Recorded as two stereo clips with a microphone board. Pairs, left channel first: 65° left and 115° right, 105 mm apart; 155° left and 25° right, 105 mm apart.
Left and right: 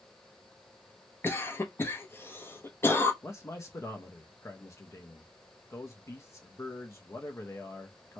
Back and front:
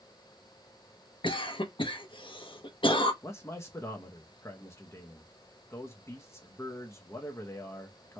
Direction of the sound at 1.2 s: 130° left.